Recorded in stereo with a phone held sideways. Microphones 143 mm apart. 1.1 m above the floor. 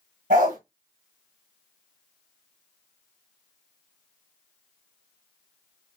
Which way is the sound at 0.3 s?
75° right (ahead or behind).